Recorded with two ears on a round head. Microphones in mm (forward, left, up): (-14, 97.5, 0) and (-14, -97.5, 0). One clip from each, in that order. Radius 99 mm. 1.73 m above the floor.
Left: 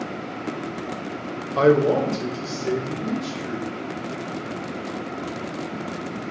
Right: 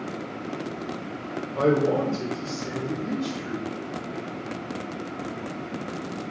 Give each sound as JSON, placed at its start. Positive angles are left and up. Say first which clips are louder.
{"t": 1.6, "sound": "a man speaking", "louder": "left 5 dB", "side_deg": 50, "distance_m": 0.5}